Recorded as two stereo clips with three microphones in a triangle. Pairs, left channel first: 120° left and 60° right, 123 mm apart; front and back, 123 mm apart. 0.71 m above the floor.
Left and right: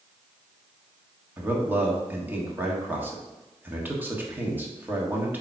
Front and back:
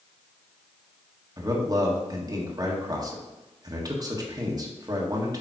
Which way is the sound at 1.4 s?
130° right.